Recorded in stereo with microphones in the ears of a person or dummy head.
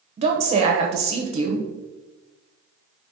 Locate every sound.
0.2 s a woman speaking: 40° right (ahead or behind), 0.9 m